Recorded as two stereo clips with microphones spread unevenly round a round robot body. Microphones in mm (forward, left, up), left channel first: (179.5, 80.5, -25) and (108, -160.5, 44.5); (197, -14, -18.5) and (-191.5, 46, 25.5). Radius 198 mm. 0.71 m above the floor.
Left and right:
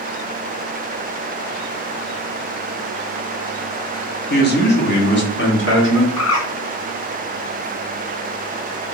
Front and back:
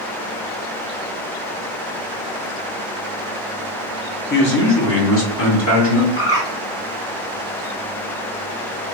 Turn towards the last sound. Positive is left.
turn(degrees=55)